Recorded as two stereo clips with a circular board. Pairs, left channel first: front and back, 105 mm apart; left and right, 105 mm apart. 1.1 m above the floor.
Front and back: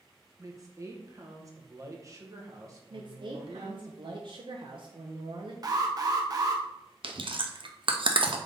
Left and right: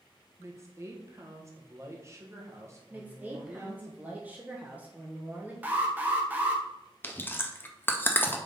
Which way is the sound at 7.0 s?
155° left.